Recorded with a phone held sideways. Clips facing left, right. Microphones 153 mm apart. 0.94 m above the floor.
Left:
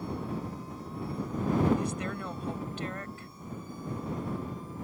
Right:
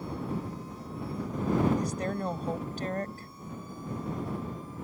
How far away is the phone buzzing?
I don't hear a phone buzzing.